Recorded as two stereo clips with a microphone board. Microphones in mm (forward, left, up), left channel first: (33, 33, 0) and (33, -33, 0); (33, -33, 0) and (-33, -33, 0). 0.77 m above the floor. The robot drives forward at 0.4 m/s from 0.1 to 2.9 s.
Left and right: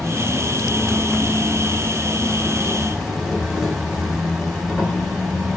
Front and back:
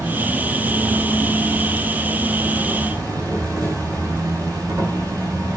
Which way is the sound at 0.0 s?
Straight behind.